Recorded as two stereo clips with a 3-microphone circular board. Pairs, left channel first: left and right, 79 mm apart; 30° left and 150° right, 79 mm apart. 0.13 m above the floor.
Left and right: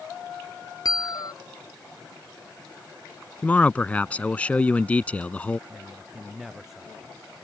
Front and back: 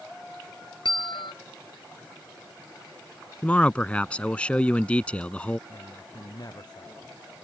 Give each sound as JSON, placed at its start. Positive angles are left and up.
{"t": 0.8, "sound": "a bell", "azimuth_deg": 50}
{"t": 3.4, "sound": "a man speaking", "azimuth_deg": 65}
{"t": 5.7, "sound": "a man speaking", "azimuth_deg": -5}